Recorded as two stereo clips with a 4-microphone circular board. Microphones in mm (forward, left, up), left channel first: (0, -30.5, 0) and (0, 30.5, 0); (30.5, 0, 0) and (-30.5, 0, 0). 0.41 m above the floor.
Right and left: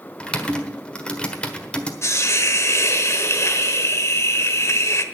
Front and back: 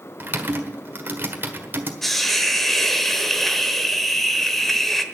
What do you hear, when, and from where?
0.2 s typing on a keyboard: 150° right, 1.4 m
2.0 s a hiss: 85° right, 1.0 m